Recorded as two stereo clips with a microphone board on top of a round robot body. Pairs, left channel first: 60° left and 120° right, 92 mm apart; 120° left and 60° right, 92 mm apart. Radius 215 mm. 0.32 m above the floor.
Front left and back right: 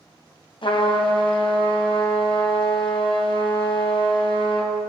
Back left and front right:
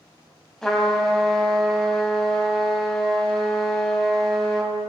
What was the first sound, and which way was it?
A trumpet, 35° left.